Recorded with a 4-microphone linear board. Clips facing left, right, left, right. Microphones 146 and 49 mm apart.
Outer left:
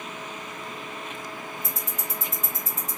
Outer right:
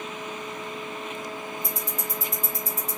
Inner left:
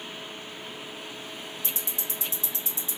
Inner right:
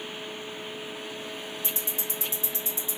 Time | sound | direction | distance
1.6 | ticking | 35° right (ahead or behind) | 1.3 m